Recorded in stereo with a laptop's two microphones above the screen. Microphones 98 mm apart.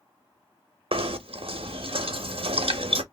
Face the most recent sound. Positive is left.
turn(degrees=-70)  # may be behind; listen again after turning